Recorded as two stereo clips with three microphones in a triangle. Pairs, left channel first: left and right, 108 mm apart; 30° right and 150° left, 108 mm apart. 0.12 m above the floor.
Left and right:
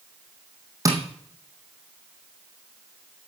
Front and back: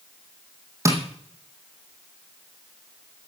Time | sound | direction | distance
0.8 | tapping | 145° right | 3.5 m